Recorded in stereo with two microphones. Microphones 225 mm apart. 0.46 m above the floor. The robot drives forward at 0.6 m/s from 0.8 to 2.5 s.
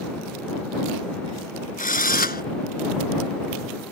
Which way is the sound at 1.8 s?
35° left (ahead or behind).